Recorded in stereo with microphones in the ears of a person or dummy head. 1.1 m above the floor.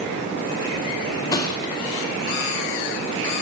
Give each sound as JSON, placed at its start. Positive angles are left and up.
{"t": 1.3, "sound": "a thud", "side_deg": 20, "distance_m": 0.9}